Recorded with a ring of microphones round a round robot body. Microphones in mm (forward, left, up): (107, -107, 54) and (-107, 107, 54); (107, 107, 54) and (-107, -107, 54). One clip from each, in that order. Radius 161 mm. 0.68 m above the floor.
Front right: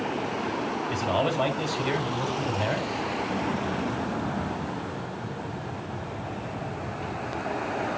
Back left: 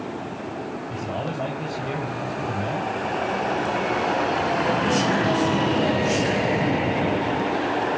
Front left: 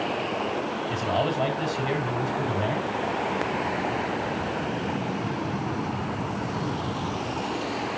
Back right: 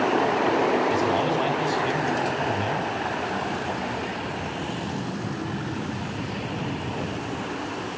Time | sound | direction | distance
0.9 | a man speaking | 70° right | 6 m